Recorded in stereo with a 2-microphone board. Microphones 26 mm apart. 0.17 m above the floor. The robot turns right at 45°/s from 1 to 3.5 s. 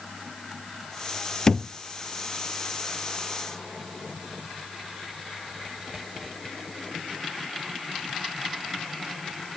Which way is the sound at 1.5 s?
20° left (ahead or behind).